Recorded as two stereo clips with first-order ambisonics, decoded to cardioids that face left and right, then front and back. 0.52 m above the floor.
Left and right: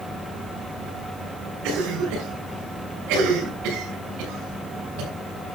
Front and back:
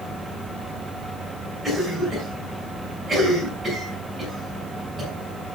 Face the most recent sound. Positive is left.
turn(degrees=-90)